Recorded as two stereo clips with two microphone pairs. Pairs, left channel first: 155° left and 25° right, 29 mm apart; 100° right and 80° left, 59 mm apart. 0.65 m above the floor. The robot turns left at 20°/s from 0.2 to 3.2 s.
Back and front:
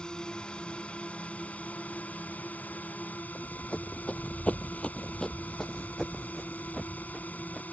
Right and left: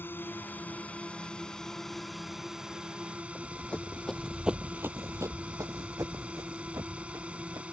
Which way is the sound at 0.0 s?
150° right.